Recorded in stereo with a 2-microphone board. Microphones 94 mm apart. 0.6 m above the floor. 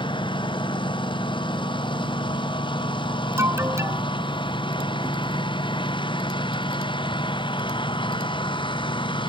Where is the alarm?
30° right (ahead or behind).